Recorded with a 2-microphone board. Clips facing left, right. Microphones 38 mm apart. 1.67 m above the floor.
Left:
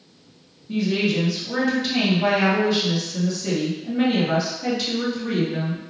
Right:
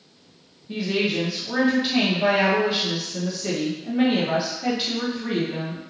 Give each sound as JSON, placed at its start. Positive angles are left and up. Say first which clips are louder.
{"t": 0.7, "sound": "a woman speaking", "louder": "left 2 dB", "side_deg": -15, "distance_m": 1.0}